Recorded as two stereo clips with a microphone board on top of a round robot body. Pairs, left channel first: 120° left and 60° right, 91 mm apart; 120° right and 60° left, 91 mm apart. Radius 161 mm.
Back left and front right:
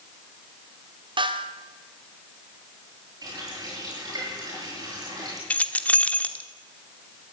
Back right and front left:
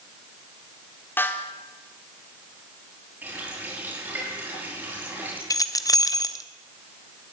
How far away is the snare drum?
About 1.8 m.